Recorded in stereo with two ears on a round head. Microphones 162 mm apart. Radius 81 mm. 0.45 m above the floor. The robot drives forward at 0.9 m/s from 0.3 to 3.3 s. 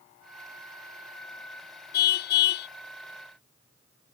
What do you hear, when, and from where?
1.9 s a car horn: 60° left (ahead or behind); by 2.7 s 65° left (ahead or behind)